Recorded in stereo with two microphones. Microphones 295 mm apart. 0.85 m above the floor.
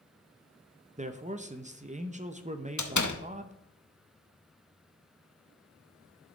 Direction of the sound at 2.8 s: 70° left (ahead or behind).